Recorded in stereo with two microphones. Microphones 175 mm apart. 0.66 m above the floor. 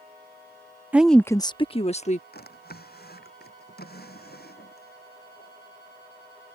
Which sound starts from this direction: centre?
A woman speaking, at 0.9 s.